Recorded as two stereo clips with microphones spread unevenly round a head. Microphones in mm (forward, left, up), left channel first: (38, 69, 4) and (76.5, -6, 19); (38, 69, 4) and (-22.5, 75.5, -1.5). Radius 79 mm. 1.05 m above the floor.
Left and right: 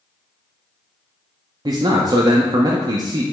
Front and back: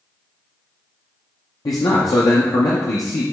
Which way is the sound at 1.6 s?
25° right.